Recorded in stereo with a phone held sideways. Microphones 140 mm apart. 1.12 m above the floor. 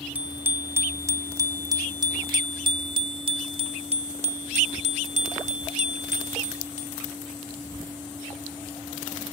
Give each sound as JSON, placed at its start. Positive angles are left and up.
{"t": 0.1, "sound": "a bicycle bell", "side_deg": -10}